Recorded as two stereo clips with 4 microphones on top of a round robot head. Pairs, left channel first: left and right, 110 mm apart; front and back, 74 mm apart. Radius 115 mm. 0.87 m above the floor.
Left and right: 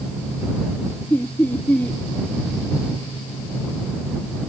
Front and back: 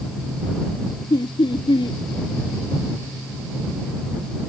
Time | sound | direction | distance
1.1 | laughter | 15° left | ?